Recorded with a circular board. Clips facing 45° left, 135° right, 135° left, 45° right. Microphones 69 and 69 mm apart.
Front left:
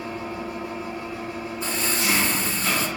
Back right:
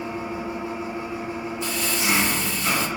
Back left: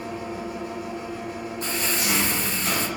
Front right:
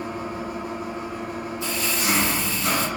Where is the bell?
I don't hear a bell.